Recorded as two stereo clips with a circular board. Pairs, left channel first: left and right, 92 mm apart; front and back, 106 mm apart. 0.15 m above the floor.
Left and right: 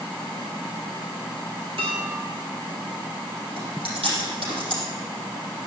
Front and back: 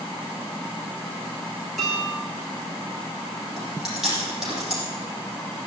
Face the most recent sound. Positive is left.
turn(degrees=-95)